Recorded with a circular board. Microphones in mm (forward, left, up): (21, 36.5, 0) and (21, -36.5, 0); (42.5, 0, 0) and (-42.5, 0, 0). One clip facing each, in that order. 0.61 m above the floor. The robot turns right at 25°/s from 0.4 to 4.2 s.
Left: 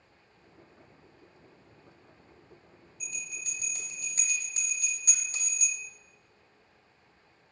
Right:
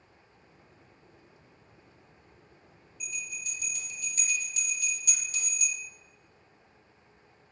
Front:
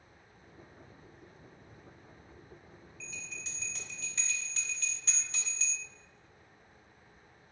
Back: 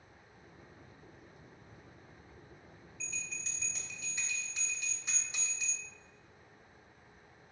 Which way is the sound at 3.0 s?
80° left.